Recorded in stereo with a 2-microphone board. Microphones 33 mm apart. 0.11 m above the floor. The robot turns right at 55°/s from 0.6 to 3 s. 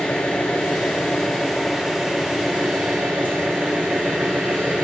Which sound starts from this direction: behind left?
An engine running, at 0.0 s.